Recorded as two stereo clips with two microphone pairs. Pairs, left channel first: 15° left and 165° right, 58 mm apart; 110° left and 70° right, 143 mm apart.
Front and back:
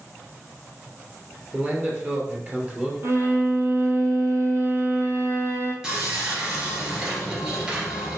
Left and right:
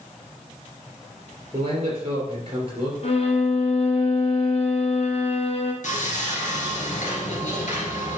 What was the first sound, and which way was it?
A man speaking, 110° right.